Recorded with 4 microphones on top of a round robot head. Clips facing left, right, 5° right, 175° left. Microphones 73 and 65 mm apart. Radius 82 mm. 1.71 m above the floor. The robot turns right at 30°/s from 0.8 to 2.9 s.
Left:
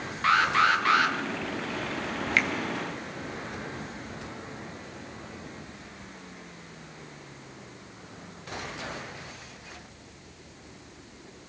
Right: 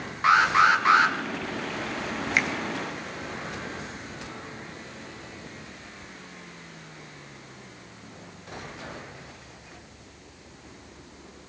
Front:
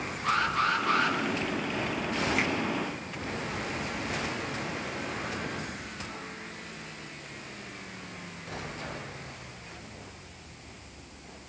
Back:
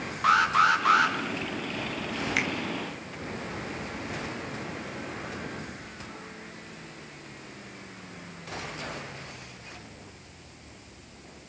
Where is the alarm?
160° right, 2.5 m; by 1.1 s 150° right, 2.5 m.